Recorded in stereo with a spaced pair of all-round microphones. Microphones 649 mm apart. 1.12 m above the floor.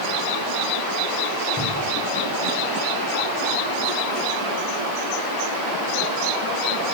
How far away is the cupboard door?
About 3.5 m.